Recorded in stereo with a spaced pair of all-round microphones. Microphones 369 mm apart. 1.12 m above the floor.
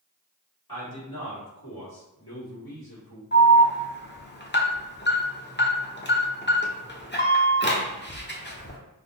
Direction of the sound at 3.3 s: 30° left (ahead or behind).